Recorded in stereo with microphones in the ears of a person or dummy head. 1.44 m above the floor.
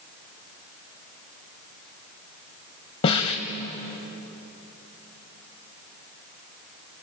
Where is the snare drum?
30° left (ahead or behind), 1.8 m.